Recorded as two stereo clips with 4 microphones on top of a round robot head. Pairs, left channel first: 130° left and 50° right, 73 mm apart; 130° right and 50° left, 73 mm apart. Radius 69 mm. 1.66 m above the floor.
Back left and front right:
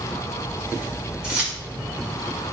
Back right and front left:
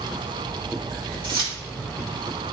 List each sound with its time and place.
1.2 s keys jangling: 25° left, 3 m